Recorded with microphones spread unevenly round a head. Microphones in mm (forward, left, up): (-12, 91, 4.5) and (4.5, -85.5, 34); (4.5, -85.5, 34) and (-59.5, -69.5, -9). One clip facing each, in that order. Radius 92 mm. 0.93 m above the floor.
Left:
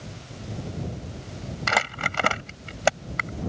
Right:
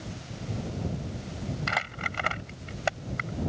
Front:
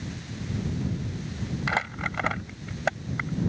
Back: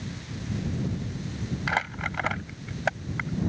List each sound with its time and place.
1.7 s crumpling: 70° left